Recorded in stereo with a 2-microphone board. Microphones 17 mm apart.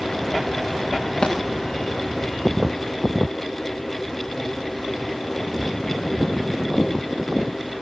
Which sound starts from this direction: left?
A thud, at 1.2 s.